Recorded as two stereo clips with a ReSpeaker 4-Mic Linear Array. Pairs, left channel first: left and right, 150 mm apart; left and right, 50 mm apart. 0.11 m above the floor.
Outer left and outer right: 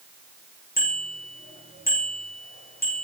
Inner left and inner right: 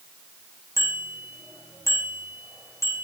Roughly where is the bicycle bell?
Left.